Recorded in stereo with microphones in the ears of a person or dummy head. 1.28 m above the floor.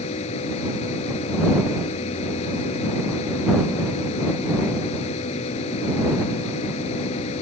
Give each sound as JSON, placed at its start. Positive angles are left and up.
{"t": 0.0, "sound": "a machine running", "side_deg": 40}